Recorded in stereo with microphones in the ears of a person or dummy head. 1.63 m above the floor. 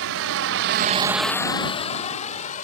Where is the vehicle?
80° right; by 2.6 s 50° left (ahead or behind).